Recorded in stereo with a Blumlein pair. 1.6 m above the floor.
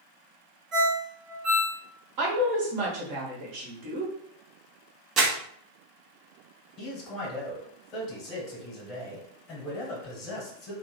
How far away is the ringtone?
About 1.3 m.